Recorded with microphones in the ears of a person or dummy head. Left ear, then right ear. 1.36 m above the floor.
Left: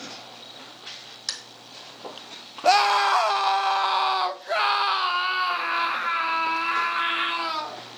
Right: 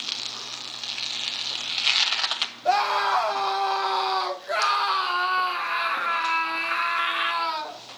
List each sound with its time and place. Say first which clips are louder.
2.6 s a scream: left 4 dB; 70° left (ahead or behind), 1.0 m; by 7.8 s 5° right (ahead or behind), 2.5 m